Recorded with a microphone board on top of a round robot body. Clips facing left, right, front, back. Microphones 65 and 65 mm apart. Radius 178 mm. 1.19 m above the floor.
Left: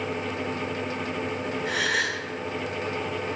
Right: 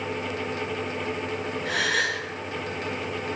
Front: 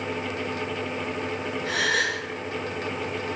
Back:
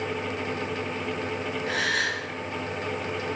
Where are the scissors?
I don't hear scissors.